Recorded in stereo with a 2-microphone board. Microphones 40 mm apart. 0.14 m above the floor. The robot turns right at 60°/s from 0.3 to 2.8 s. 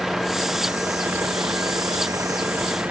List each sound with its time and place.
0.0 s a vehicle: 5° right (ahead or behind); by 2.9 s 40° right (ahead or behind)